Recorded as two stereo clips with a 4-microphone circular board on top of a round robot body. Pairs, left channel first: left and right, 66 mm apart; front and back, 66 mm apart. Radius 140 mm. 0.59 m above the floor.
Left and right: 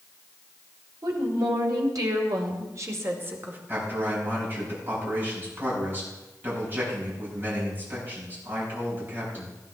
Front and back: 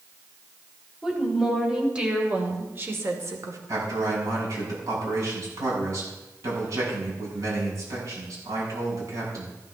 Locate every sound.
1.0 s a woman speaking: 95° right, 4 m; by 3.6 s 150° right, 2.5 m
3.7 s a man speaking: 145° right, 7.5 m